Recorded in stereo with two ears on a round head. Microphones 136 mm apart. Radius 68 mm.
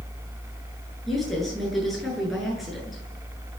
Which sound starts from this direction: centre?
A woman speaking, at 1.1 s.